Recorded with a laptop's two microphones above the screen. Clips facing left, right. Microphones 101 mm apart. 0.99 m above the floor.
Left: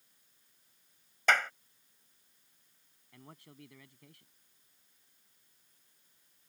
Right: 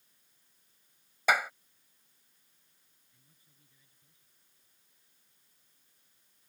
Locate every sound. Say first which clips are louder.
1.3 s a clap: right 1 dB; 10° right (ahead or behind)
3.1 s a man speaking: left 21 dB; 85° left